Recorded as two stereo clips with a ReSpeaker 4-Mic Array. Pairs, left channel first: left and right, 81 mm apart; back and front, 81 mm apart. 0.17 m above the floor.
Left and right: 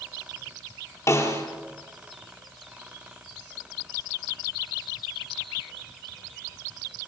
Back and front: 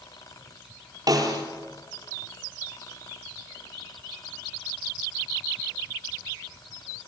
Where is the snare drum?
40° left, 4 m.